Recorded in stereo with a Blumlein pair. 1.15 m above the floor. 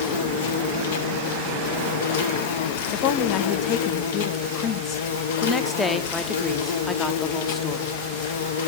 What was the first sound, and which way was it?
An insect, 55° left.